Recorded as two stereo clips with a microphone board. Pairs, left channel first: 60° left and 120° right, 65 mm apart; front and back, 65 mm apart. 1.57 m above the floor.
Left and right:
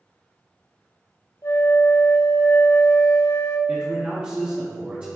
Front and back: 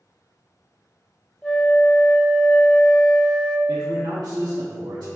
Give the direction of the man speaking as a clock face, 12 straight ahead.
6 o'clock.